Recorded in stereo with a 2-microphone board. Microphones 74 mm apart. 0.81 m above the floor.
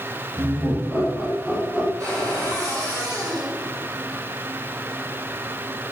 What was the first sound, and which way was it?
Laughter, 30° right (ahead or behind).